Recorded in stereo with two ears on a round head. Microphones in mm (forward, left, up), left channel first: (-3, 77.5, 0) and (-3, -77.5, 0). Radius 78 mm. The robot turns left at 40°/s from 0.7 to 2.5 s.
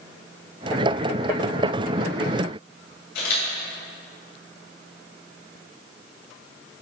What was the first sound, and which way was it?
A camera shutter, 65° left (ahead or behind).